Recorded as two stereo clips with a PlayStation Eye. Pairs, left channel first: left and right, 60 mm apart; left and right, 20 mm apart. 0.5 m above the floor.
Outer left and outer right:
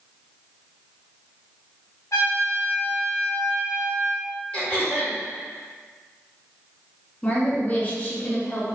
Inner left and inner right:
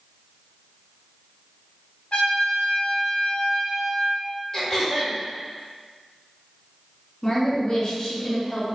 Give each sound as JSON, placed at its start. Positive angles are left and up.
{"t": 2.1, "sound": "a trumpet", "side_deg": 75, "distance_m": 0.7}
{"t": 4.5, "sound": "throat clearing", "side_deg": 25, "distance_m": 1.1}
{"t": 7.2, "sound": "a woman speaking", "side_deg": 30, "distance_m": 0.8}